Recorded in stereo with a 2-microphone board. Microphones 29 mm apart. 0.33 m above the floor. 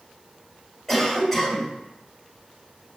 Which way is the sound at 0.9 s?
5° left (ahead or behind).